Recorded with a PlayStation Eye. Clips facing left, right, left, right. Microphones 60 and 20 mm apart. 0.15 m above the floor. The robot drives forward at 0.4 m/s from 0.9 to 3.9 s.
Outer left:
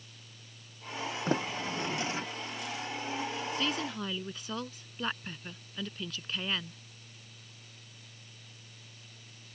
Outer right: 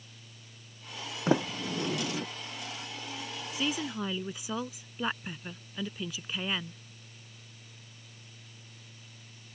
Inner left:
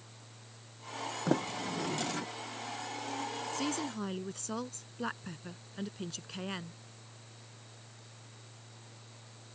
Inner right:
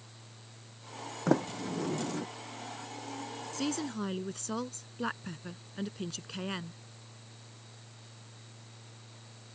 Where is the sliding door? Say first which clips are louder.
Outer right 5 dB, inner right 4 dB; 15° right (ahead or behind); by 2.3 s 20° right (ahead or behind).